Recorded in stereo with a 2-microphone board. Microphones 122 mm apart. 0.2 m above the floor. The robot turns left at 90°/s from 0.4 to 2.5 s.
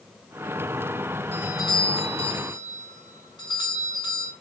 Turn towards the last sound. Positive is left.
turn(degrees=55)